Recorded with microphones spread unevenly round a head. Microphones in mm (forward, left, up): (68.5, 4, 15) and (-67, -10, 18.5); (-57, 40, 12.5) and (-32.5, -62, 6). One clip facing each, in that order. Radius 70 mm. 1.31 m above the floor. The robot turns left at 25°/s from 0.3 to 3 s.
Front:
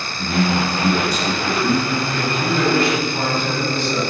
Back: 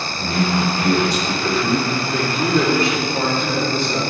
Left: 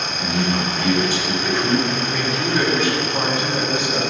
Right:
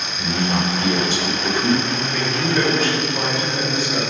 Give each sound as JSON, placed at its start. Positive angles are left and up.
{"t": 0.2, "sound": "a man speaking", "azimuth_deg": -125, "distance_m": 4.5}
{"t": 1.9, "sound": "a man speaking", "azimuth_deg": -155, "distance_m": 5.0}